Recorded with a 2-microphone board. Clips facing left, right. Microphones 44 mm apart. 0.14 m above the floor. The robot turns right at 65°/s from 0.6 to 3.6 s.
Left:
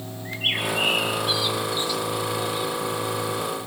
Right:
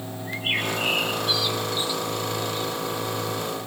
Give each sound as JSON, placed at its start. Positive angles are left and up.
{"t": 0.2, "sound": "a bird", "side_deg": 65, "distance_m": 4.5}